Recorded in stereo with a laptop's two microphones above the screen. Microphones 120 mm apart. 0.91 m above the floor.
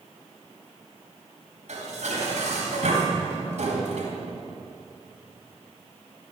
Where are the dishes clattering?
75° right (ahead or behind), 3.5 m.